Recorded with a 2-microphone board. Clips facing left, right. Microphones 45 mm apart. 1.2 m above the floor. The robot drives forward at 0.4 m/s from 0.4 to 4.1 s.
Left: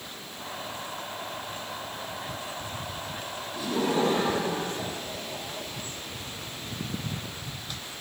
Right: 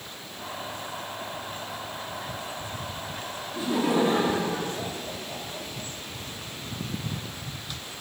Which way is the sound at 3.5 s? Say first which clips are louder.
Right 2 dB; 25° right (ahead or behind).